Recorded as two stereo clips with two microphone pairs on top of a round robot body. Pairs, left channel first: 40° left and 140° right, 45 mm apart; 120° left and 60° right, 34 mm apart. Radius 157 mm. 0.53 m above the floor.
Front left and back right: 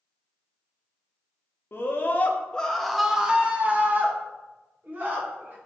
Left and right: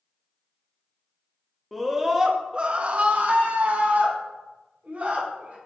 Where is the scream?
50° left, 0.8 m; by 5.6 s 105° right, 1.7 m.